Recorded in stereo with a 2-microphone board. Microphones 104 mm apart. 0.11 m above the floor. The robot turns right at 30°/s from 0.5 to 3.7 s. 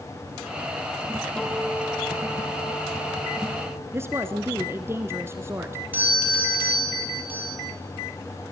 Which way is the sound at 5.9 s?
20° right (ahead or behind).